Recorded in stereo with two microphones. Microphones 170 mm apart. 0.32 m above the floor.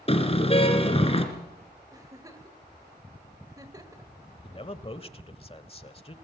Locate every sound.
0.1 s a car horn: 35° left (ahead or behind), 2.5 m
1.9 s a giggle: 20° right (ahead or behind), 1.6 m
4.4 s a man speaking: 35° left (ahead or behind), 1.1 m